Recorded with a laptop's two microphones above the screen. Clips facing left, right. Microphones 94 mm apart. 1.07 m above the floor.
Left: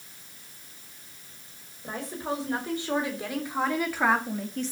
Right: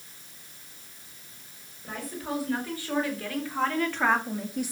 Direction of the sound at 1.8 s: 25° left (ahead or behind).